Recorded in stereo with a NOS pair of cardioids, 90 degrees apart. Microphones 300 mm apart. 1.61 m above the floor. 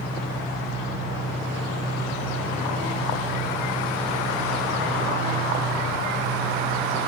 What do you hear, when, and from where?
0.0 s an engine running: 45° left, 2.5 m